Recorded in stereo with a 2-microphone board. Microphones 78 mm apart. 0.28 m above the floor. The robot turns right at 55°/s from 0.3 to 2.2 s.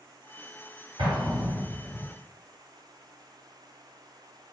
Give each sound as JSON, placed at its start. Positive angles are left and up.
{"t": 1.0, "sound": "an explosion", "azimuth_deg": -90, "distance_m": 1.9}